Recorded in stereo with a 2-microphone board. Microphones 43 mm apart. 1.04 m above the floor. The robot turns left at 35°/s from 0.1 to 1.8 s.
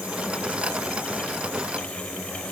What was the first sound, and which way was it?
Only background noise.